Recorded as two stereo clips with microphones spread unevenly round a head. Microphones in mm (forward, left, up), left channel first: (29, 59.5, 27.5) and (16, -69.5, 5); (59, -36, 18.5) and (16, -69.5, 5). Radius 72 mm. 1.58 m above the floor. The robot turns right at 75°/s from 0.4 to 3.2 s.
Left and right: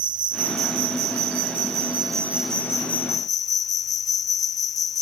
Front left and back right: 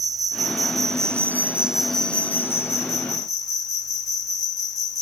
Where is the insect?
155° right; by 5.0 s 55° left.